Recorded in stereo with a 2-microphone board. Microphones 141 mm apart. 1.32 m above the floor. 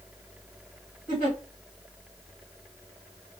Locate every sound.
1.1 s a giggle: 60° left (ahead or behind), 1.7 m